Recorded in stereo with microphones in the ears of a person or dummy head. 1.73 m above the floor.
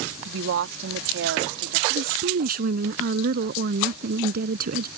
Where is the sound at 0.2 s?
70° right (ahead or behind); by 1.8 s 80° right.